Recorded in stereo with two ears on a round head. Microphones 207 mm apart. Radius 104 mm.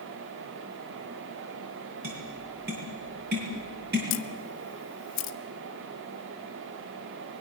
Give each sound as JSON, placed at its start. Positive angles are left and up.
{"t": 2.0, "sound": "tapping", "side_deg": -45, "distance_m": 7.5}
{"t": 4.1, "sound": "a camera shutter", "side_deg": 55, "distance_m": 1.5}